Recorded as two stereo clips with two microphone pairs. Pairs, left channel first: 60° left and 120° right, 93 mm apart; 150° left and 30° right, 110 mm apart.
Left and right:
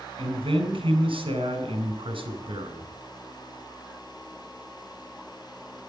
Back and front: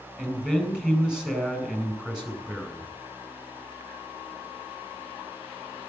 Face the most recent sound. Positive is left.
turn(degrees=-115)